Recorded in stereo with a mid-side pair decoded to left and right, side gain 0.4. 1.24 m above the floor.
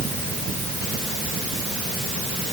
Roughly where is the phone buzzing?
I don't hear a phone buzzing.